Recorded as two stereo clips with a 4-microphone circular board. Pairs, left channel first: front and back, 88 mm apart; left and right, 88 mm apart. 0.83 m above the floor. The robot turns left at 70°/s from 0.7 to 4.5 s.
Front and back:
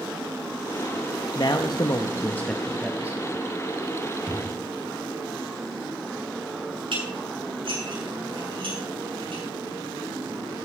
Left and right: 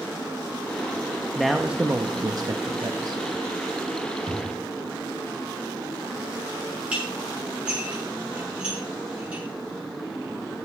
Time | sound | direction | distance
1.4 | a man speaking | 10° left | 0.8 m
4.3 | a drawer | 95° left | 3 m
6.9 | dishes clattering | 165° right | 7.5 m